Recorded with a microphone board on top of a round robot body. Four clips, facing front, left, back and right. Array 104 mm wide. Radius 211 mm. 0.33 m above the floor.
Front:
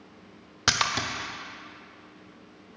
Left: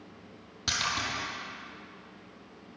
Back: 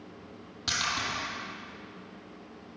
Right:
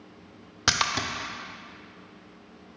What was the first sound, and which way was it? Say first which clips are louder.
A splash: right 5 dB, front 5 dB; 50° right.